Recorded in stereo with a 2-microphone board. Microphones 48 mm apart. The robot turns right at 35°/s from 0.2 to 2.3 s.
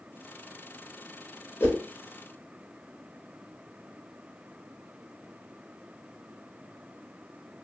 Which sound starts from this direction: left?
A whoosh, at 1.6 s.